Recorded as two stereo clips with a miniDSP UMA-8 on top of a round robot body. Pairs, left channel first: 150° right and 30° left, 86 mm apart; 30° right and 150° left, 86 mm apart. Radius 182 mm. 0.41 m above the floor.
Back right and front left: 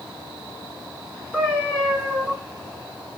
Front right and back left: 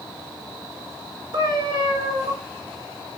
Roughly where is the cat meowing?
Left.